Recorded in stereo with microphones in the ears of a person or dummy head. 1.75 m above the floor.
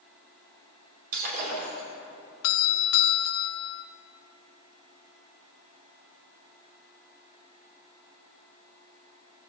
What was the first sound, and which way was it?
Breaking glass, 45° right (ahead or behind).